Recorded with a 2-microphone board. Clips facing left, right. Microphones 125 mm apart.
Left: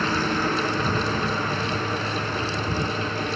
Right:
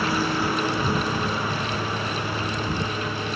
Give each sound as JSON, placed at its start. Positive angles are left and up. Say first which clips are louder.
{"t": 0.0, "sound": "a lawn mower", "louder": "even", "side_deg": -10}